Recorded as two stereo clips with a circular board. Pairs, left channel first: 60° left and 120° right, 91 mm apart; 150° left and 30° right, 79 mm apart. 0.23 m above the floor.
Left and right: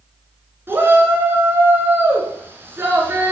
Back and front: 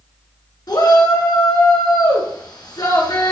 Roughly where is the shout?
Behind.